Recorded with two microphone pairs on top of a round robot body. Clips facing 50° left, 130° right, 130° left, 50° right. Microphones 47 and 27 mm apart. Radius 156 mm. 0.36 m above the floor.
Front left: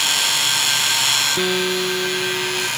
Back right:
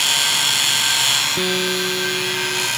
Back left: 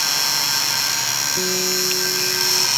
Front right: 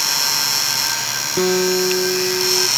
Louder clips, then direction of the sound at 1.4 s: Front left 1 dB, front right 5 dB; 30° right.